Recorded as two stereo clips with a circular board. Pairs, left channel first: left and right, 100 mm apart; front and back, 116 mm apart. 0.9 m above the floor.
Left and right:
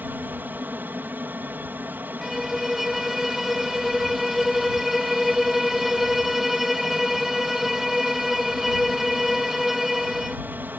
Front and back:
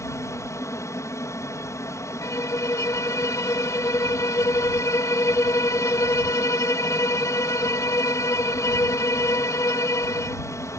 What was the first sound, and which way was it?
An aircraft, 35° right.